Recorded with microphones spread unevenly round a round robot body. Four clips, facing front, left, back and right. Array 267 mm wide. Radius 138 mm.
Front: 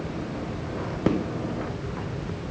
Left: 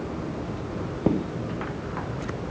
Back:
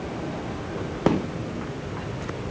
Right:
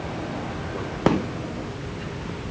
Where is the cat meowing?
No cat meowing in this recording.